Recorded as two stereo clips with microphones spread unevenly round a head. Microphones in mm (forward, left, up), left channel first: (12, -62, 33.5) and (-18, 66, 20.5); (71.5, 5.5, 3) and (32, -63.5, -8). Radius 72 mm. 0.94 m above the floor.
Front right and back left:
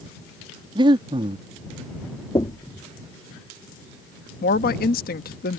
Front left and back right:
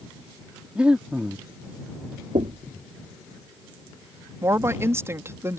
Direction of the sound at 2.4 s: 140° right.